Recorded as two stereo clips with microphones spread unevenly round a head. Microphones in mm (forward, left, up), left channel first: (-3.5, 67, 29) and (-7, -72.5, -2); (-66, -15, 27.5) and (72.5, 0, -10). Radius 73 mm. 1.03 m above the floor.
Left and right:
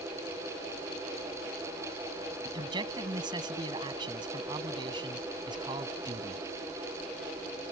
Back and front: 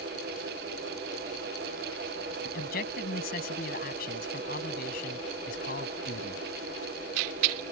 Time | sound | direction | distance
2.5 | a man speaking | 150° right | ?